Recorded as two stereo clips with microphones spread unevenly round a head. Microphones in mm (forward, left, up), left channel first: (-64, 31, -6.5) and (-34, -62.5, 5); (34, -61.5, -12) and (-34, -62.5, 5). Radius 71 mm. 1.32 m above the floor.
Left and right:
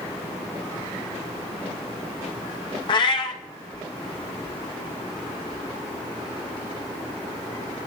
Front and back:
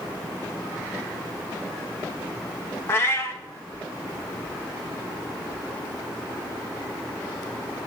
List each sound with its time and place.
2.9 s a cat meowing: 70° left, 0.7 m